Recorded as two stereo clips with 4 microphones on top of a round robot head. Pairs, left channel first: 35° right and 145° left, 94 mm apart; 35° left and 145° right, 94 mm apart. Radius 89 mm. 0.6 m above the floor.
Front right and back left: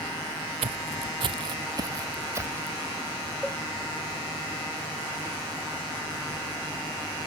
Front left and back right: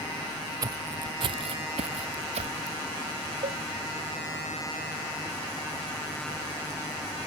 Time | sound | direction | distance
0.6 | footsteps | 165° left | ?
3.4 | a cowbell | 125° right | ?